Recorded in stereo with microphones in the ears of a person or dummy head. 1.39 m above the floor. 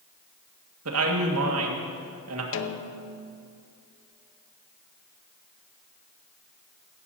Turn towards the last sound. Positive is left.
turn(degrees=65)  # may be behind; listen again after turning